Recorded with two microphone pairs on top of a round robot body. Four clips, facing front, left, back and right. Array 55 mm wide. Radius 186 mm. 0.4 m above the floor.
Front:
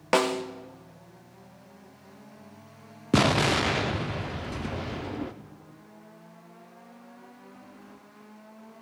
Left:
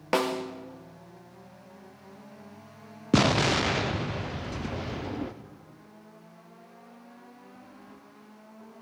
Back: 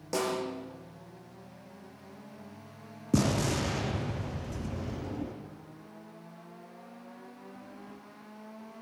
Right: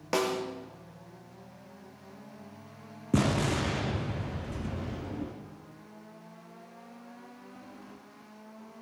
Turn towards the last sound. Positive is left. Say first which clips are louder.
# left 5 dB, front 6 dB
turn(degrees=30)